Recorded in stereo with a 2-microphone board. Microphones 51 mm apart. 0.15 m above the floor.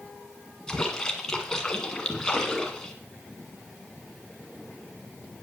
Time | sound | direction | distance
0.7 | a splash | 15° left (ahead or behind) | 1.6 m